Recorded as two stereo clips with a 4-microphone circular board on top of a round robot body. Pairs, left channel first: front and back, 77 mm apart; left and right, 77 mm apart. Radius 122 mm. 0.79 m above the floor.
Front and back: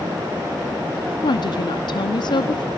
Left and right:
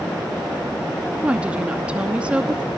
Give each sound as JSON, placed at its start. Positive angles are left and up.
{"t": 1.2, "sound": "a woman speaking", "azimuth_deg": -15, "distance_m": 1.1}